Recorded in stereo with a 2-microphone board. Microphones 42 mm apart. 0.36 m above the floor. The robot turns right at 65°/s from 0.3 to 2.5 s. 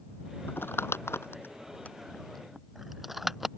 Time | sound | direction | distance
0.5 | crumpling | 50° left (ahead or behind) | ?